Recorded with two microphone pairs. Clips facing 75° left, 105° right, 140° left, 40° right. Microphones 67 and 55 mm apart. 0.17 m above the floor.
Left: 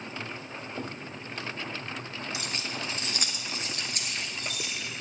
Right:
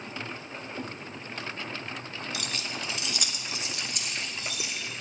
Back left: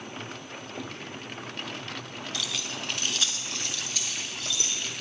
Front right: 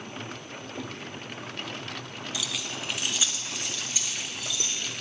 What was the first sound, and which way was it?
Keys jangling, 40° left.